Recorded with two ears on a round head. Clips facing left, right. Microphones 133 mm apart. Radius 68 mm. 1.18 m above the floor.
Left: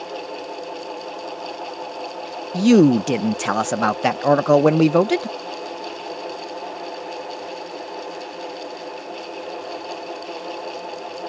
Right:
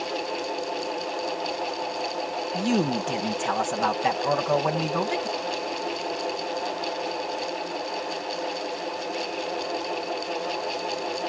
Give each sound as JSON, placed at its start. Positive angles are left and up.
{"t": 2.5, "sound": "a man speaking", "side_deg": 65}